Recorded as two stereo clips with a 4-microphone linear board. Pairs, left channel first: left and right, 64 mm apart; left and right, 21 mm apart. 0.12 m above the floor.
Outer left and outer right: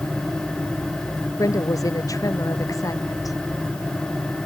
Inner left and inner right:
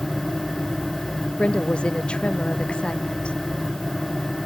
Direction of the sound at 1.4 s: 60° left (ahead or behind).